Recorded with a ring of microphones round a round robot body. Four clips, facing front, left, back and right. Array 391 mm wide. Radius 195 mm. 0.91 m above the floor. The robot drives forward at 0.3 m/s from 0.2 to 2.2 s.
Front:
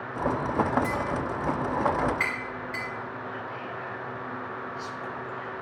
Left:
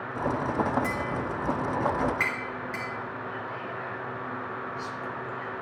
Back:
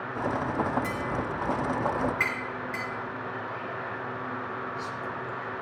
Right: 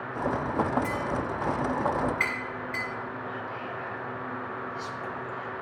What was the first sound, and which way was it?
Tapping, 110° left.